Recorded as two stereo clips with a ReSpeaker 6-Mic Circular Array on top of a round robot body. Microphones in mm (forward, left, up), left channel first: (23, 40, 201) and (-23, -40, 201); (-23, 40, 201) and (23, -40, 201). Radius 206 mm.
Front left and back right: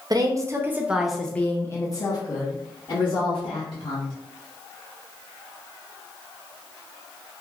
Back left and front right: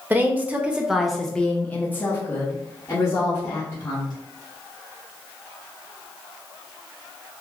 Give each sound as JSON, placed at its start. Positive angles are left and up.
{"t": 0.1, "sound": "a woman speaking", "azimuth_deg": -120, "distance_m": 0.9}